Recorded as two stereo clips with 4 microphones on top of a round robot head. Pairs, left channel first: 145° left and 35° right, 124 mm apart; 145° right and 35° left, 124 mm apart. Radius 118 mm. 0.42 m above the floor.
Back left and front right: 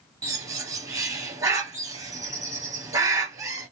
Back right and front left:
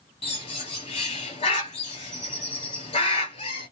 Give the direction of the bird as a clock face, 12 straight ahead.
3 o'clock.